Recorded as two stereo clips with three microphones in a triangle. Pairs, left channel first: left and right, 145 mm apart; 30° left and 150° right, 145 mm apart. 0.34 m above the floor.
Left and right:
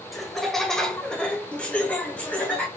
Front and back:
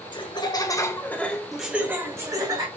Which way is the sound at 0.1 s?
Straight ahead.